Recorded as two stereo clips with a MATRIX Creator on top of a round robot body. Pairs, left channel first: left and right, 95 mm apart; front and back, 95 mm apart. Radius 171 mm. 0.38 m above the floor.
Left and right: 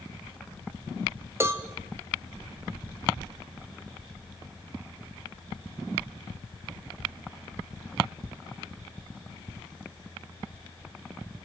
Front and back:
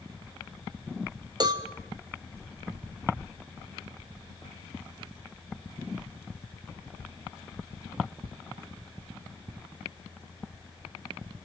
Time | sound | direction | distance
1.4 | a cowbell | 145° right | 1.8 m